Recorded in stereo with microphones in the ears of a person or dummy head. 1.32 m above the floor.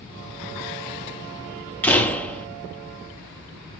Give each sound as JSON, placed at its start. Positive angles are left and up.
{"t": 1.8, "sound": "a door slam", "side_deg": 10, "distance_m": 1.3}